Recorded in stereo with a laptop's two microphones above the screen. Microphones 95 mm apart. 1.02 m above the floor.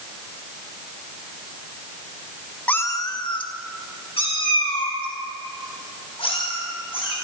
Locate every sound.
2.7 s a cat meowing: 15° left (ahead or behind), 0.5 m; by 7.2 s 80° left, 5.5 m